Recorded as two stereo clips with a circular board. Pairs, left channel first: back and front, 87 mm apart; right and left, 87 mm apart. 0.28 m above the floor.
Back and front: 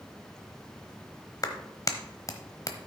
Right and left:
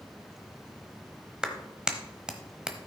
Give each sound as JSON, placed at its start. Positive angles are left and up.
{"t": 1.4, "sound": "a clap", "azimuth_deg": 165, "distance_m": 1.0}